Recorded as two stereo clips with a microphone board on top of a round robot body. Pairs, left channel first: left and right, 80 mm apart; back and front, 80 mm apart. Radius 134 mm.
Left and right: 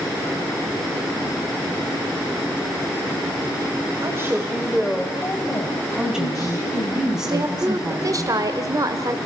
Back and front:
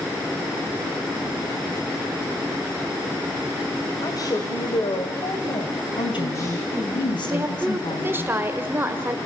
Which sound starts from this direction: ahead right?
A woman speaking, at 7.3 s.